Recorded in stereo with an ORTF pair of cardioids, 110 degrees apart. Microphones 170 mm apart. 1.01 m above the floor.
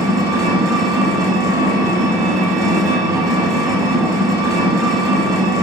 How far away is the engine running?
About 0.8 m.